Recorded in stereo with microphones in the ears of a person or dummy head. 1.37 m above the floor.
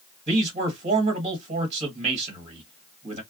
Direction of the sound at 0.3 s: 45° right (ahead or behind).